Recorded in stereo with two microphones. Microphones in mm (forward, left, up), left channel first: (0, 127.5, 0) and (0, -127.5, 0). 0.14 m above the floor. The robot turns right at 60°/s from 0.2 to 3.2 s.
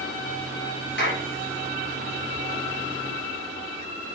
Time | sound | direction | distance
1.0 | a clap | 45° left (ahead or behind) | 3 m